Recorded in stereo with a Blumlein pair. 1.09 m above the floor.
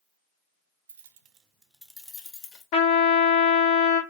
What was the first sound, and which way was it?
Keys jangling, 70° right.